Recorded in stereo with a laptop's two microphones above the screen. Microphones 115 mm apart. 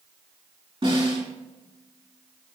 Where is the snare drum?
45° right (ahead or behind), 3.5 m.